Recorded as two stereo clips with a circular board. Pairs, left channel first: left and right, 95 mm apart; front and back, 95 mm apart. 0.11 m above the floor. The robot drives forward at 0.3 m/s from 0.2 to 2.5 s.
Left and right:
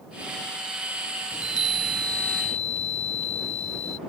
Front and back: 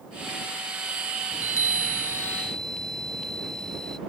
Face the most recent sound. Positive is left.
turn(degrees=85)